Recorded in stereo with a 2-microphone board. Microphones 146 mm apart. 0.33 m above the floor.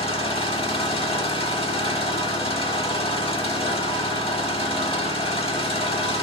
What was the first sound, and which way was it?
An engine running, 40° left (ahead or behind).